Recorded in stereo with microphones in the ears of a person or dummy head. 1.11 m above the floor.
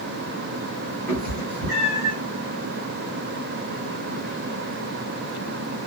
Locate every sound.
1.1 s a cat meowing: 40° right (ahead or behind), 2.5 m; by 2.1 s 25° right (ahead or behind), 2.5 m